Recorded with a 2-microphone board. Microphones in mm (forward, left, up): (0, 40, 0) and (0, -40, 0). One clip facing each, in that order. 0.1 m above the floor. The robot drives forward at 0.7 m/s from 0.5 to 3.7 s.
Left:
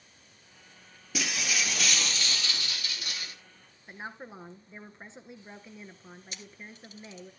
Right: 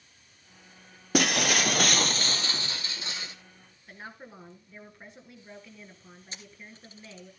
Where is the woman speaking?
25° left (ahead or behind), 1.2 m.